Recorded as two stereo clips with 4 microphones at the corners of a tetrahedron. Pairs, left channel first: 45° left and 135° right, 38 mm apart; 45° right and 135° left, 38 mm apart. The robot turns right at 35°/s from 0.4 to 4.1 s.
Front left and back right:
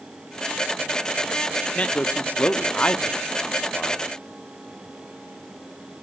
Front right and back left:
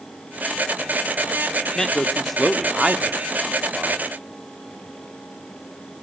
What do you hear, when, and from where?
1.8 s a man speaking: 25° left, 0.8 m; by 4.0 s 105° left, 0.8 m